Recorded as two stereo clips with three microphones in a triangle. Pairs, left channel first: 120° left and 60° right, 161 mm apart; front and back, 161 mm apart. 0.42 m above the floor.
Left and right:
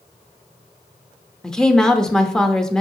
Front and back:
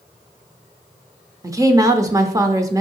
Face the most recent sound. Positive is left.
turn(degrees=-160)